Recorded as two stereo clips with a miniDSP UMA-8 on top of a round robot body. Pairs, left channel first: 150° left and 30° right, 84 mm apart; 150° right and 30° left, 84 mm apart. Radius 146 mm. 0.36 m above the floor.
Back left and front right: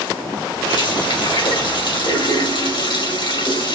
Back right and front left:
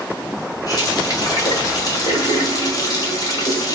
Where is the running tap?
170° left, 1.9 m.